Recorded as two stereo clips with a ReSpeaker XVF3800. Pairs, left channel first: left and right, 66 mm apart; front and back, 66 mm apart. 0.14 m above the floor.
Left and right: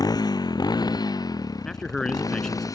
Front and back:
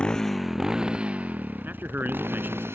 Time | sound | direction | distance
0.0 | a motorcycle | 75° left | ?
1.6 | a man speaking | 165° left | ?